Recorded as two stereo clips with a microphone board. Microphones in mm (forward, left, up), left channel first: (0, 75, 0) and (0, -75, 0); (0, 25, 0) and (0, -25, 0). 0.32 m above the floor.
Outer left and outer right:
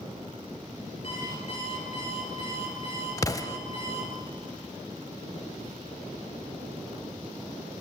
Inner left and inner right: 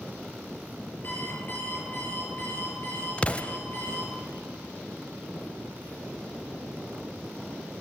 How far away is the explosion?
About 0.5 m.